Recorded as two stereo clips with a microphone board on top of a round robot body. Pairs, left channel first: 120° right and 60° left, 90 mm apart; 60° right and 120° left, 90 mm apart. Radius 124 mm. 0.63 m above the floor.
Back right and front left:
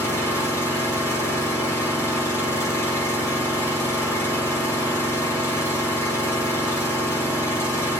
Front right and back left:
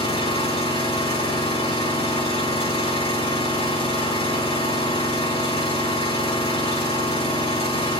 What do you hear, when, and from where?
0.0 s an engine running: 60° right, 6 m